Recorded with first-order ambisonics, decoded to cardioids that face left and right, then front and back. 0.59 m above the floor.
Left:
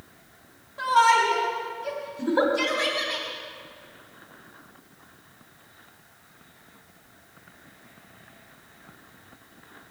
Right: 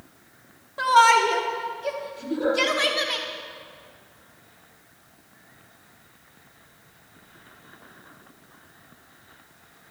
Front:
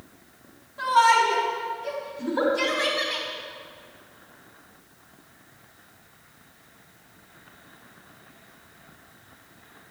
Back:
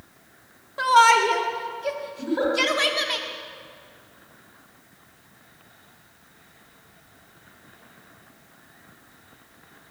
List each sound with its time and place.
0.8 s a shout: 150° right, 1.0 m
2.2 s a giggle: 85° left, 2.5 m